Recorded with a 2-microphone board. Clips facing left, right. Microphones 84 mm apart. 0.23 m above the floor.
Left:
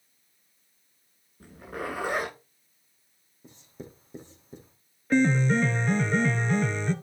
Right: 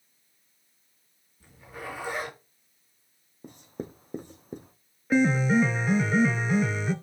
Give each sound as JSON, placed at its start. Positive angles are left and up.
{"t": 1.4, "sound": "a zipper", "side_deg": 55, "distance_m": 9.5}
{"t": 3.4, "sound": "writing", "side_deg": -55, "distance_m": 2.5}
{"t": 5.1, "sound": "a piano", "side_deg": -5, "distance_m": 1.2}